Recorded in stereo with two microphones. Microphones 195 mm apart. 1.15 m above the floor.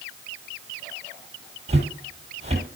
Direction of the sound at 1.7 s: 35° right (ahead or behind).